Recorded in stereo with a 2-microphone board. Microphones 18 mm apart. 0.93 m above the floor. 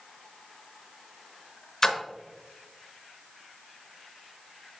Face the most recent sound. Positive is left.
turn(degrees=15)  # may be behind; listen again after turning